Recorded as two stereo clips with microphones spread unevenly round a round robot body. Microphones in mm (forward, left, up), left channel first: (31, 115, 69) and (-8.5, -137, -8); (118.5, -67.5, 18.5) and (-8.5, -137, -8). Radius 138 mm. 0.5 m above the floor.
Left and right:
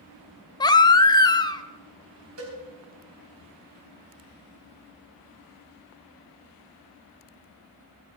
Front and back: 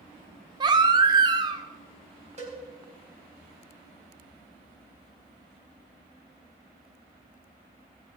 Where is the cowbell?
120° right, 4 m.